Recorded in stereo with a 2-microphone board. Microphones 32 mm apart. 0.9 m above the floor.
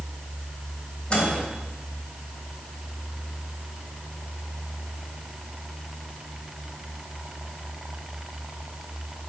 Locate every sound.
1.1 s a microwave: 35° left (ahead or behind), 3.5 m